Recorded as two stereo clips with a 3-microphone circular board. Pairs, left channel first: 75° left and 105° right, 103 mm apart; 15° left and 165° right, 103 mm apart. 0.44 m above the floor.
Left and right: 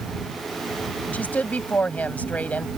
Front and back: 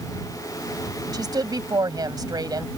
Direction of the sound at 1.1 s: 150° left.